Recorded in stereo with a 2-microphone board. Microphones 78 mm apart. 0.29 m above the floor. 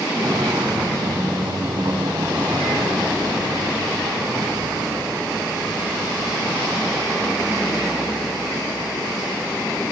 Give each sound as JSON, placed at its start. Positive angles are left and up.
{"t": 0.1, "sound": "footsteps", "side_deg": -65, "distance_m": 3.0}